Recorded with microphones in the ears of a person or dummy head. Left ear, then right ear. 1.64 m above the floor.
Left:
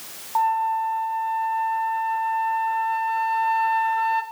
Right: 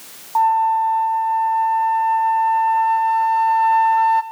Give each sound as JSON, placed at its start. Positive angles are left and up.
{"t": 0.3, "sound": "a flute", "side_deg": -25, "distance_m": 0.8}